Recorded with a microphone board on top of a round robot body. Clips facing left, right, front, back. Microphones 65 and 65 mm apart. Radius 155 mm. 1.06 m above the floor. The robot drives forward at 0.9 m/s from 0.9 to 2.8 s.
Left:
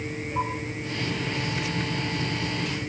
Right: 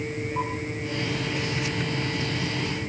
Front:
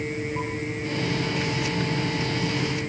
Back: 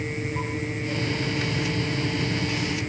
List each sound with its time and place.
Only background noise.